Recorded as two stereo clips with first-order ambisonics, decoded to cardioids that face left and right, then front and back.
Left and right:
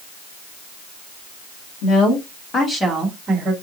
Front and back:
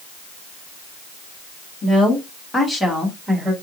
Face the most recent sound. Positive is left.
turn(degrees=-110)